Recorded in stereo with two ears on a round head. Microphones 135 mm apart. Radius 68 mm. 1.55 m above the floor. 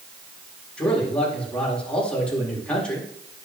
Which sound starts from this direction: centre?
A man speaking, at 0.8 s.